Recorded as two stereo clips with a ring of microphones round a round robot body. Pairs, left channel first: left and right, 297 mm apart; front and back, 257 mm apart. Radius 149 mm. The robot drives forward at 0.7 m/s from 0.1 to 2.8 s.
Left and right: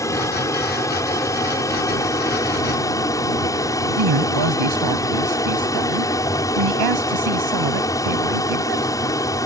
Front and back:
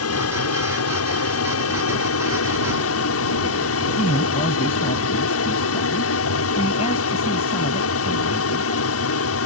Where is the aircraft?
10° left; by 9.5 s 15° left.